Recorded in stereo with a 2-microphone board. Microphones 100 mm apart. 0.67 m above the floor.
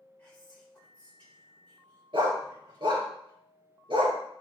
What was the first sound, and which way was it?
Whispering, 15° left (ahead or behind).